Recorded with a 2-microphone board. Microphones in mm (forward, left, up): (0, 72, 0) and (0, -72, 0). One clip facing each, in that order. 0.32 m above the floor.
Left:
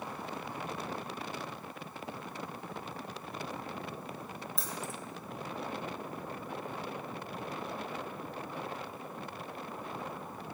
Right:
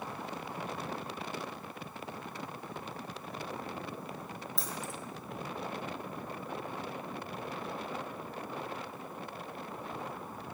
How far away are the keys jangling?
About 0.7 m.